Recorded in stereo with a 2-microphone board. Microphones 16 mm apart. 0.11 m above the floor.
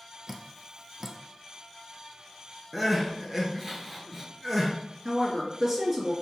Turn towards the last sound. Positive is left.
turn(degrees=-20)  # may be behind; listen again after turning